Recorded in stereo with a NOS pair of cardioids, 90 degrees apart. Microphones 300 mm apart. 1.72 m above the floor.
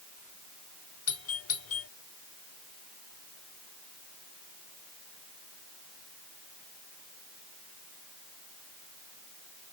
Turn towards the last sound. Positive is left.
turn(degrees=50)